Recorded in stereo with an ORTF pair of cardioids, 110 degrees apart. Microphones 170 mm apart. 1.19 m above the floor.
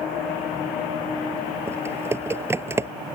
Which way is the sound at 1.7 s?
15° right.